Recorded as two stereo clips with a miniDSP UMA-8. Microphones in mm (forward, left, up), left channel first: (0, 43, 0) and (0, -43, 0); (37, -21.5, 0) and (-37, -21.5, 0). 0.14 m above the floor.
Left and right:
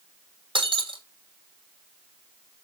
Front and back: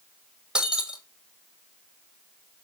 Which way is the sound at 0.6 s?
100° right.